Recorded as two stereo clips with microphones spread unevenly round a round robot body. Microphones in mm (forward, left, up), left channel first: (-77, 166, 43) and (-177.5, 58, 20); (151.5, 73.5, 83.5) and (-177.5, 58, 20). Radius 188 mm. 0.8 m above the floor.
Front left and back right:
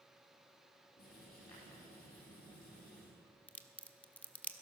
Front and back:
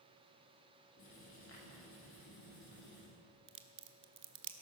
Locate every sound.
1.0 s writing: 55° left, 7 m
3.5 s a crack: 130° left, 1.3 m